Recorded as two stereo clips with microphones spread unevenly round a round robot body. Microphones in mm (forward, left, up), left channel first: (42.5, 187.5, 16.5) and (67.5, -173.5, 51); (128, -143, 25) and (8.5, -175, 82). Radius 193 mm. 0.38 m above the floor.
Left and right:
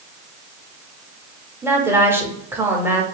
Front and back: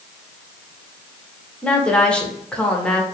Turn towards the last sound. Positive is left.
turn(degrees=0)